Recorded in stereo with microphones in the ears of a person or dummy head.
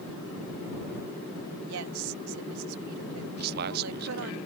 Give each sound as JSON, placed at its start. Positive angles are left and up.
{"t": 1.6, "sound": "a woman speaking", "side_deg": -80}
{"t": 3.4, "sound": "a man speaking", "side_deg": -50}